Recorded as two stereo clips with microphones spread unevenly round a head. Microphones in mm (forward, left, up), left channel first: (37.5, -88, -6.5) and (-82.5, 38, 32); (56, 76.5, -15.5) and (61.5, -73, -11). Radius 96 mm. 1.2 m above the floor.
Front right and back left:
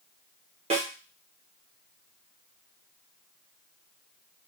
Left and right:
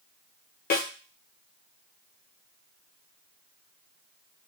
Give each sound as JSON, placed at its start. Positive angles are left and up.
{"t": 0.7, "sound": "a snare drum", "azimuth_deg": 75, "distance_m": 0.7}